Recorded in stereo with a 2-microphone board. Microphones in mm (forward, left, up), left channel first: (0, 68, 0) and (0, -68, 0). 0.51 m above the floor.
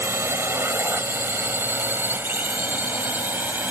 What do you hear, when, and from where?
0.0 s a drone: 20° right (ahead or behind); by 3.7 s 15° right (ahead or behind)